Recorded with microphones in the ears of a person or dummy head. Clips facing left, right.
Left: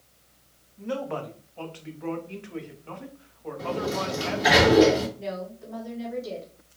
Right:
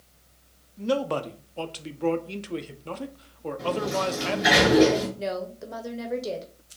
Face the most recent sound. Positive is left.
turn(degrees=-75)  # may be behind; listen again after turning